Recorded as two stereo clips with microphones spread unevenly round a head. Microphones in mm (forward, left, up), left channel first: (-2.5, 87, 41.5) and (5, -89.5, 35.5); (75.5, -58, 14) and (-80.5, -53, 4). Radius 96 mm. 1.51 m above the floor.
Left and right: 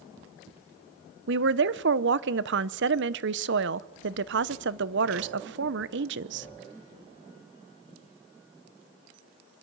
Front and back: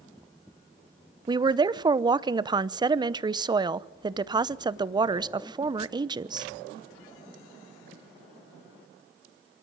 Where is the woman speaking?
115° right, 0.8 m.